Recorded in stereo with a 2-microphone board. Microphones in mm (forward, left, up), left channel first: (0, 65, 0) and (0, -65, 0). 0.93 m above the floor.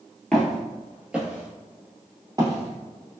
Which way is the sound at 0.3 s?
5° left (ahead or behind).